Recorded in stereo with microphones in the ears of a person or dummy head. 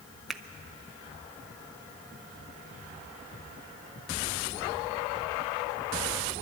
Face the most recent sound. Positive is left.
turn(degrees=0)  # may be behind; listen again after turning